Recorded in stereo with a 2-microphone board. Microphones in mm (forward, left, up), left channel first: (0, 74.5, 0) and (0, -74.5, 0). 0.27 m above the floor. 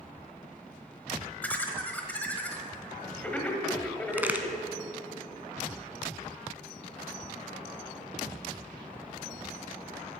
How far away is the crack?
About 0.7 m.